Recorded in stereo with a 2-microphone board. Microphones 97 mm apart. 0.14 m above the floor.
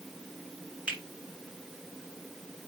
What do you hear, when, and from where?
0.9 s a finger snap: 10° right (ahead or behind), 1.8 m